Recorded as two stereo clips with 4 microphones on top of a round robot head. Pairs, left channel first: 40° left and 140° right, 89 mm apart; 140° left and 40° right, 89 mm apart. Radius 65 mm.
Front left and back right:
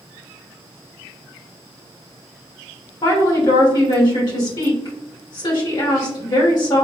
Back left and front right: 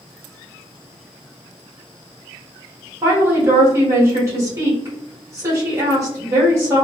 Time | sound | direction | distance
3.0 | a woman speaking | 10° left | 1.6 m